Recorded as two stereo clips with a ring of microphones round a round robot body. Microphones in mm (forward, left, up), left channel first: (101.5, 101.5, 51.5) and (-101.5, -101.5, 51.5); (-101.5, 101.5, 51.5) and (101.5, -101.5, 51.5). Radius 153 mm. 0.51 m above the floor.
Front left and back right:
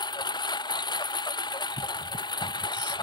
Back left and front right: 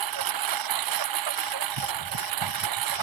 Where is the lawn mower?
30° right.